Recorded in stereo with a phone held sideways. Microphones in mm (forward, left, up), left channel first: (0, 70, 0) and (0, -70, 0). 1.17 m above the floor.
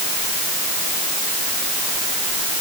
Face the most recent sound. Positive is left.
No sound to turn to.